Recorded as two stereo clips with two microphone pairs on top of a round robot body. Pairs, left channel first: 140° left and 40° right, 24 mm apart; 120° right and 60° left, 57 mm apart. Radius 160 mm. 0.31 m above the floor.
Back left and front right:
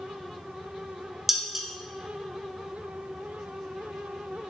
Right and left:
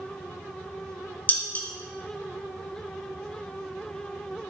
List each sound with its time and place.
1.3 s dishes clattering: 115° right, 0.8 m